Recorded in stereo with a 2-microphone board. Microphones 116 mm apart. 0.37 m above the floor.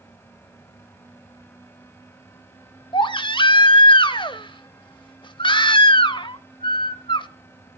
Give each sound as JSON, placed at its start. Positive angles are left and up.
{"t": 2.9, "sound": "a baby crying", "side_deg": 45, "distance_m": 0.9}